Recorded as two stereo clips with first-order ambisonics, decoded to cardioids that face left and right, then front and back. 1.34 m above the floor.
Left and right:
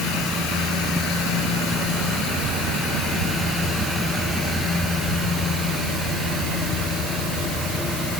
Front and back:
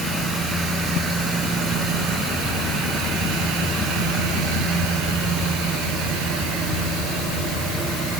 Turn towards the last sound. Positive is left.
No sound to turn to.